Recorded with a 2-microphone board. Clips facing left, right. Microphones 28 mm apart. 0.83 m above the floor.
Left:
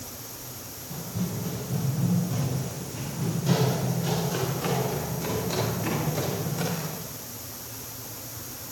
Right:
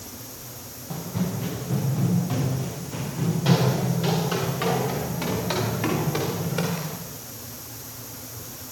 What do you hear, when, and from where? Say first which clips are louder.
0.9 s running footsteps: right 4 dB; 75° right (ahead or behind), 5.5 m; by 7.0 s 60° right (ahead or behind), 14.5 m